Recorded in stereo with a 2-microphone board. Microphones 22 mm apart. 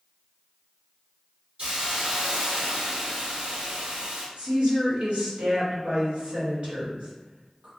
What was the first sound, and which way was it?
A hiss, 65° right (ahead or behind).